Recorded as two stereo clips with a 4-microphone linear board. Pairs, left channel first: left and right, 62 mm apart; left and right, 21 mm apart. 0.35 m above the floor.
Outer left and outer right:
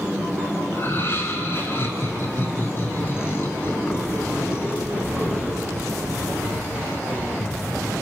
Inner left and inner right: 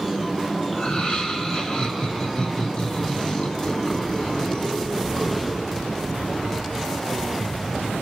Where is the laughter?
40° left (ahead or behind), 4 m.